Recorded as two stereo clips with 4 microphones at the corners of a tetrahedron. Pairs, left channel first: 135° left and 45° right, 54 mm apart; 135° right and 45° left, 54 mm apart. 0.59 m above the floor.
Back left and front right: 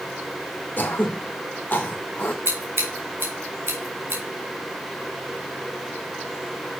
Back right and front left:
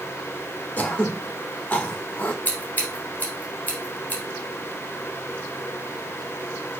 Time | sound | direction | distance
0.8 | throat clearing | 175° left | 1.2 m
2.5 | scissors | 75° right | 2.5 m